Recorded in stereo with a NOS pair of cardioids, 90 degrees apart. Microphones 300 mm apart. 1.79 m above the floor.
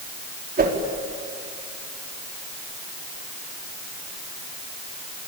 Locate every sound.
0.6 s a whoosh: 30° right, 4.5 m